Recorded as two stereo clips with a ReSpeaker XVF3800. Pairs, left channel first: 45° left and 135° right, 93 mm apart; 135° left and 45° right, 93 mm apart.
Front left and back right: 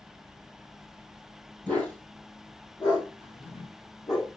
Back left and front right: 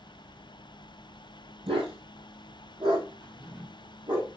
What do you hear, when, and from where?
1.7 s a dog barking: 25° right, 3.5 m; by 4.2 s straight ahead, 5 m
3.2 s a drawer: 55° left, 5.5 m